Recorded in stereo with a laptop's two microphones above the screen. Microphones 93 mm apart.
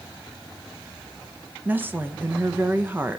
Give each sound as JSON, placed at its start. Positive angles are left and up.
{"t": 1.6, "sound": "a woman speaking", "side_deg": -20, "distance_m": 1.0}